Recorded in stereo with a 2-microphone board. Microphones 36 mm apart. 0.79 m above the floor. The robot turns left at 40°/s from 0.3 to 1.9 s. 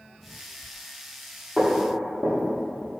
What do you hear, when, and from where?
1.6 s footsteps: 15° right (ahead or behind), 1.8 m; by 3.0 s 45° right (ahead or behind), 1.1 m